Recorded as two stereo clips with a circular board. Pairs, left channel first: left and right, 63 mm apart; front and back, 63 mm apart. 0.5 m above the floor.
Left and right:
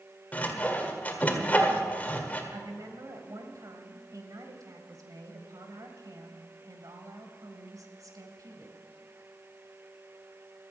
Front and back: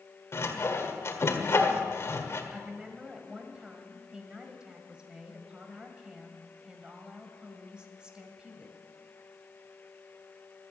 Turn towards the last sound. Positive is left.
turn(degrees=-105)